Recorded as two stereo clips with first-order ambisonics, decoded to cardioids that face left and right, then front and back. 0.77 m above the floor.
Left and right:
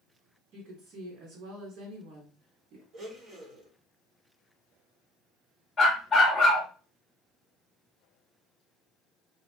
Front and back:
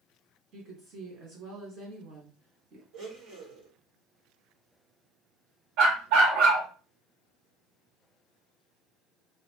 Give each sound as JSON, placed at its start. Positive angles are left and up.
{"t": 0.5, "sound": "a woman speaking", "azimuth_deg": -135, "distance_m": 2.5}
{"t": 2.9, "sound": "a blender", "azimuth_deg": -155, "distance_m": 2.5}
{"t": 5.8, "sound": "a dog barking", "azimuth_deg": 165, "distance_m": 1.9}